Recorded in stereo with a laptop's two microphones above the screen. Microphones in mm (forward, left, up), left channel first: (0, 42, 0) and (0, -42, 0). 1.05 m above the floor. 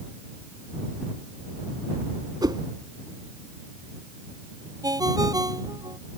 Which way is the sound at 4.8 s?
50° right (ahead or behind).